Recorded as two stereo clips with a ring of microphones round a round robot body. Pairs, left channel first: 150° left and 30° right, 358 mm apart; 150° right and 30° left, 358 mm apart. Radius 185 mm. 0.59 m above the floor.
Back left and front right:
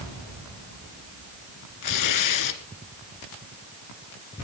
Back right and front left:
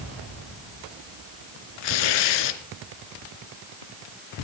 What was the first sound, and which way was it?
Tearing paper, 170° right.